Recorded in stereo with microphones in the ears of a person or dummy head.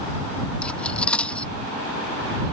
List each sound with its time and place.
0.6 s cutlery clinking: 5° left (ahead or behind)